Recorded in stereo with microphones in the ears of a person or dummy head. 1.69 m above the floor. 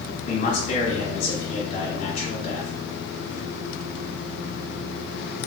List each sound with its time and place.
0.3 s a man speaking: 50° left (ahead or behind), 1.2 m